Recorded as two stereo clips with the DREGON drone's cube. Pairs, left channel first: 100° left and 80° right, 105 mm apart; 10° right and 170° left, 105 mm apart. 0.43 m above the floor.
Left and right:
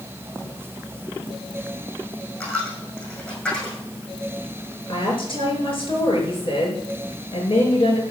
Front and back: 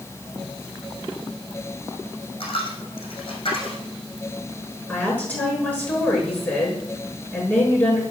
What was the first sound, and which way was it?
A dropped coin, 25° left.